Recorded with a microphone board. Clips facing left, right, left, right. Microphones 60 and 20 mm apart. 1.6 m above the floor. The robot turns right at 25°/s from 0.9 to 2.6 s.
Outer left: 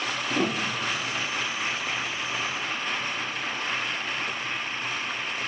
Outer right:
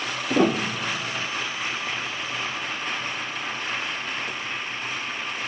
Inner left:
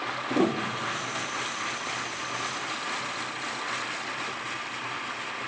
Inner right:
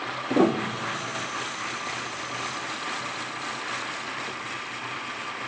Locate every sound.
0.3 s a piano: 50° right (ahead or behind), 0.6 m; by 1.3 s 60° right (ahead or behind), 0.6 m